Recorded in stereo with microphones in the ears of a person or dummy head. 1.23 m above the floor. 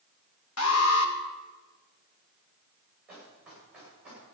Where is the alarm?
75° left (ahead or behind), 1.5 m.